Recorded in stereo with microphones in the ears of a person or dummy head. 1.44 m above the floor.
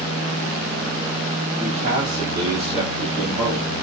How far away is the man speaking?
About 1.6 m.